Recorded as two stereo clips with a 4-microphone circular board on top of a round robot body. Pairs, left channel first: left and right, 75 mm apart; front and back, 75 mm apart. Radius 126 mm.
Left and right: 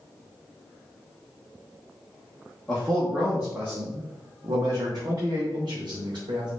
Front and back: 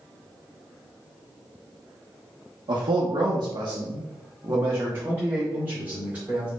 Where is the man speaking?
175° left, 1.1 m; by 6.5 s 105° right, 2 m.